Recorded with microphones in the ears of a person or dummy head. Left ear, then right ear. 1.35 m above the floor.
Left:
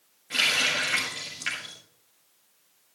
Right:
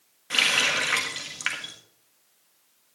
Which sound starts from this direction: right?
A running tap, at 0.3 s.